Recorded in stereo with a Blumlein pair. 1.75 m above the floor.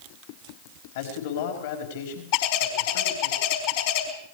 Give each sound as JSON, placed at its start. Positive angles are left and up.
{"t": 0.9, "sound": "a man speaking", "azimuth_deg": 55, "distance_m": 5.0}
{"t": 2.3, "sound": "a bird", "azimuth_deg": 45, "distance_m": 4.0}